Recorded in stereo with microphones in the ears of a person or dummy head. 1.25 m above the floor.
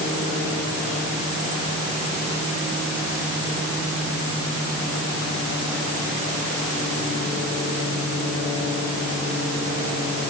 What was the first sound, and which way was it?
Only background noise.